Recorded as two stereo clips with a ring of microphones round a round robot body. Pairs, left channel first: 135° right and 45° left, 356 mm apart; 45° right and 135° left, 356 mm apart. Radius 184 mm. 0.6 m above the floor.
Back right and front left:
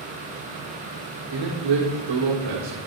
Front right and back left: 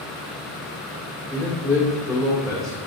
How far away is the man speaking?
About 1.6 m.